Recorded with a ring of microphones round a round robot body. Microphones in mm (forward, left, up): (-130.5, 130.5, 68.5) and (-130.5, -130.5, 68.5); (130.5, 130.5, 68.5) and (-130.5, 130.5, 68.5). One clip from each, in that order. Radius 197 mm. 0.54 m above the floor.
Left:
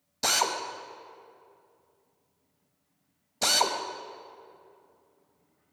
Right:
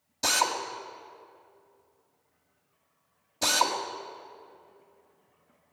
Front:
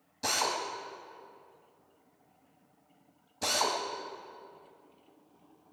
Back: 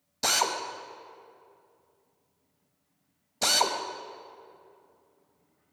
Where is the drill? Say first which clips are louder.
Even, back 4 dB; 160° left, 1.6 m.